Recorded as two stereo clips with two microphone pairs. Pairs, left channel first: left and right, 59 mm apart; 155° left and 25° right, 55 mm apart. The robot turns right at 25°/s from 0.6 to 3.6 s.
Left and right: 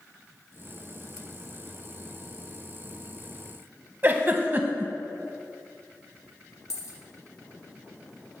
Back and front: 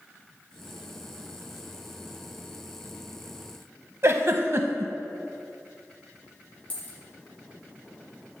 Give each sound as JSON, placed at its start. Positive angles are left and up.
{"t": 4.0, "sound": "a giggle", "azimuth_deg": -45, "distance_m": 0.5}
{"t": 6.7, "sound": "a dropped coin", "azimuth_deg": 105, "distance_m": 1.2}